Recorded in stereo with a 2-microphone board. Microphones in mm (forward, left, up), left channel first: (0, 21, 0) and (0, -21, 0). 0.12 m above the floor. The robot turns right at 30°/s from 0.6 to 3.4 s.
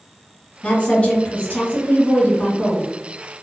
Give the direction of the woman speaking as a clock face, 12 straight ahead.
11 o'clock.